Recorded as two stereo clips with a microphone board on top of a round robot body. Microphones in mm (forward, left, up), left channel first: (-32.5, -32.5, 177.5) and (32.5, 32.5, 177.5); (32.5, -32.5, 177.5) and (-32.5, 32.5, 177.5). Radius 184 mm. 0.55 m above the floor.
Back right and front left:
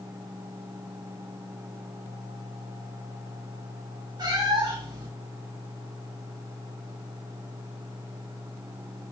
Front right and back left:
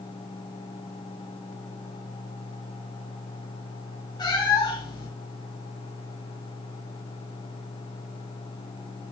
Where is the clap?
I don't hear a clap.